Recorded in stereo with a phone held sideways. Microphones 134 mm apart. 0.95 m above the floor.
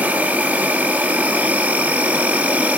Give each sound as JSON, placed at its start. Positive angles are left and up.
{"t": 0.0, "sound": "an insect", "side_deg": -10, "distance_m": 1.2}